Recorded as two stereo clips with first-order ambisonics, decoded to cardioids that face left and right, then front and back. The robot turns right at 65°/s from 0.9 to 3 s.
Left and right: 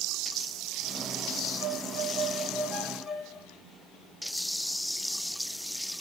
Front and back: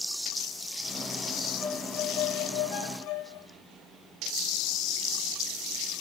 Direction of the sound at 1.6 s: 70° right.